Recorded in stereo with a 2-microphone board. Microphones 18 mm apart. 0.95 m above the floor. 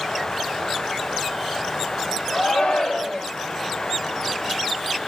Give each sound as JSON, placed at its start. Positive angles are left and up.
{"t": 2.3, "sound": "a shout", "side_deg": 70, "distance_m": 2.0}